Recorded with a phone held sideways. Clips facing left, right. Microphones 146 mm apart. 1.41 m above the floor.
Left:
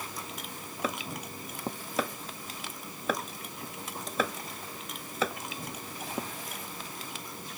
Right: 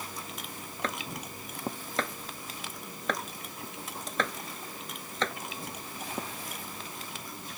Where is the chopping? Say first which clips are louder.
Left 2 dB; 10° left (ahead or behind).